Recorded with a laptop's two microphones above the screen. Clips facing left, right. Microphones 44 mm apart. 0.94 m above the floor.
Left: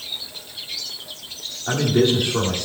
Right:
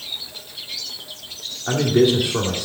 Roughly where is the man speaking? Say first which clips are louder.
Right 2 dB; centre.